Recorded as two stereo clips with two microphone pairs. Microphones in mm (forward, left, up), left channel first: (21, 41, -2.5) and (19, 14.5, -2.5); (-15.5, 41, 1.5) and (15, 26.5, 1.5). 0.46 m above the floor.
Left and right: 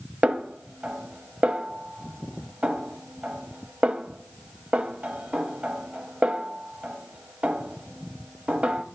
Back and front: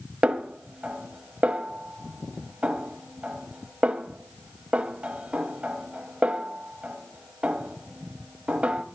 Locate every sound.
0.2 s a snare drum: 70° right, 0.9 m